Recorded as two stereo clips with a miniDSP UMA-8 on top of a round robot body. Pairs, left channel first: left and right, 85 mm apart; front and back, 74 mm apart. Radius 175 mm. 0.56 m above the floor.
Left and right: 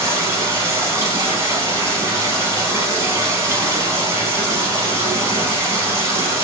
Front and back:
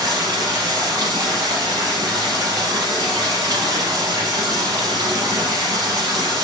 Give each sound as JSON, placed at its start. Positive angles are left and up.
{"t": 0.0, "sound": "running water", "azimuth_deg": -145, "distance_m": 0.9}